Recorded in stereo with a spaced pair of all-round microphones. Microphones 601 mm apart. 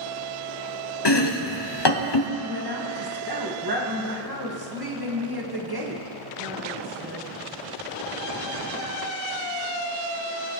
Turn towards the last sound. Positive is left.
turn(degrees=-35)  # may be behind; listen again after turning